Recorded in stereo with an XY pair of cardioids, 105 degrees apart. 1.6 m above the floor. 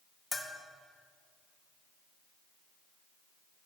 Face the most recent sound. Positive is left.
turn(degrees=20)